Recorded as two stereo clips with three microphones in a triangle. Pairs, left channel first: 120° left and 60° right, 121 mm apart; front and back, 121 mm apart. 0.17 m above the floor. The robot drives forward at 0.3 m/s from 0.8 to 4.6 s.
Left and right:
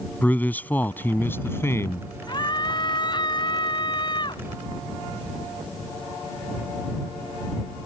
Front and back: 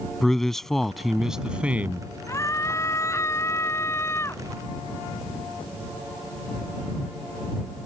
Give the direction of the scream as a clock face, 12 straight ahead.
10 o'clock.